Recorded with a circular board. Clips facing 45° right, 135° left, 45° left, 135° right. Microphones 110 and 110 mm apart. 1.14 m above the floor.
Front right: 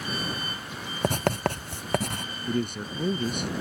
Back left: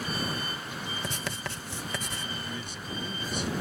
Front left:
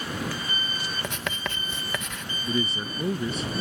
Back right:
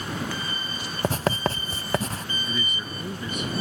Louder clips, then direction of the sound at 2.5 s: Front right 9 dB, front left 8 dB; 10° right.